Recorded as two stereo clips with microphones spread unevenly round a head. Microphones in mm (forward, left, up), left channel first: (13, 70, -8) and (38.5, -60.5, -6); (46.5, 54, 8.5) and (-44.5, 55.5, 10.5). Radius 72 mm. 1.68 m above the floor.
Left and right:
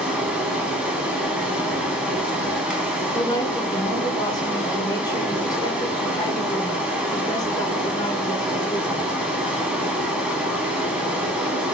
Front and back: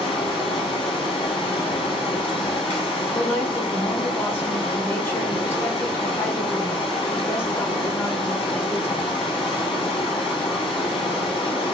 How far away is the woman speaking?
About 0.7 m.